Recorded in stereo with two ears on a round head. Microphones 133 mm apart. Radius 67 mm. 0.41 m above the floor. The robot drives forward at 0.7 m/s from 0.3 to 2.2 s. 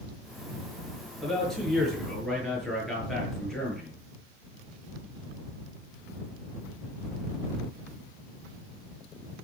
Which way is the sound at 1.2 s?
5° left (ahead or behind).